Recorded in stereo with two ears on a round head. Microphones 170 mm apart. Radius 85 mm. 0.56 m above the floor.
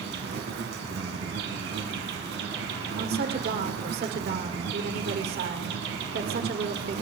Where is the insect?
65° right (ahead or behind), 2.5 m.